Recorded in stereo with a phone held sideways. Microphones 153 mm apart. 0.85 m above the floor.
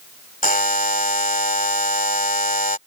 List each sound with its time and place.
0.4 s a buzzer: 65° left (ahead or behind)